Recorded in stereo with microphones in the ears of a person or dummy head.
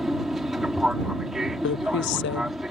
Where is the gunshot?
No gunshot in this recording.